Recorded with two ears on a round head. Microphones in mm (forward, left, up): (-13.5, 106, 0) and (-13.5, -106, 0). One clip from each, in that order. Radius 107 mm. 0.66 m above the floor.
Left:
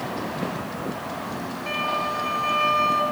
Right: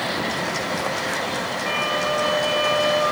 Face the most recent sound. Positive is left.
turn(degrees=-10)  # may be behind; listen again after turning